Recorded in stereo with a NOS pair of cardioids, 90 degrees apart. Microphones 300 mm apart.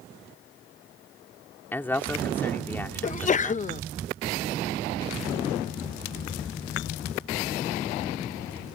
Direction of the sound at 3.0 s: 25° left.